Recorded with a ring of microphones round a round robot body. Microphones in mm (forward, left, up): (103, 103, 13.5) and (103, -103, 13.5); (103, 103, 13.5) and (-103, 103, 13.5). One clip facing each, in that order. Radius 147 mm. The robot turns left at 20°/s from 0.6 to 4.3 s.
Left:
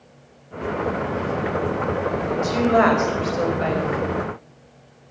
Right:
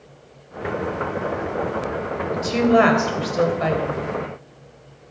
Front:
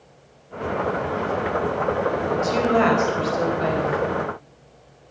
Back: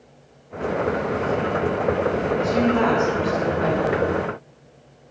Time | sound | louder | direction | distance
2.3 | a woman speaking | right 3 dB, even | 25° right | 3 m